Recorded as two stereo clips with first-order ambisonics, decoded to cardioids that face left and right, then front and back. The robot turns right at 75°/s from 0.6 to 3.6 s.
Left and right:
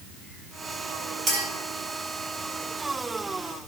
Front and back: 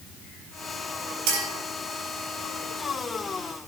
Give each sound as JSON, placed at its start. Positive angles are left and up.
{"t": 1.3, "sound": "a clink", "azimuth_deg": -165, "distance_m": 4.0}